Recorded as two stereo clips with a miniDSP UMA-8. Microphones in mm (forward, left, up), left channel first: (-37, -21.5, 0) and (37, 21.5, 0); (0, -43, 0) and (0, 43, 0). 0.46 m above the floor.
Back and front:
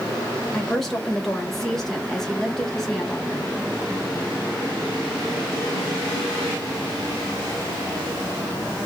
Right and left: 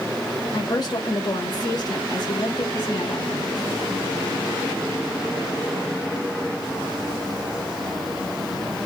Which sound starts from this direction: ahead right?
A woman speaking, at 0.5 s.